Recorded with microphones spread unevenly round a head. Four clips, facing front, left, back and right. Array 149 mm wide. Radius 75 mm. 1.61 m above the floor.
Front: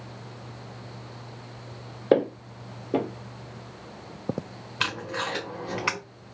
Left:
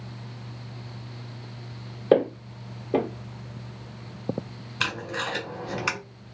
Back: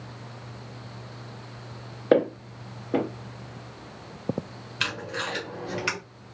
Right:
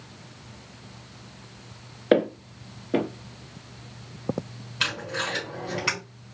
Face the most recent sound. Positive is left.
turn(degrees=10)